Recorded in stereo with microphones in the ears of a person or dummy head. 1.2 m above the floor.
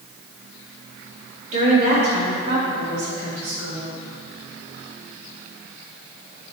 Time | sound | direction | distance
1.5 | a woman speaking | 40° right (ahead or behind) | 2 m